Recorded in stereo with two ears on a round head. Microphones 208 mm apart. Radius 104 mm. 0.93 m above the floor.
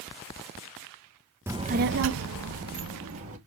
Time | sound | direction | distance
1.5 | a child speaking | 10° right (ahead or behind) | 0.5 m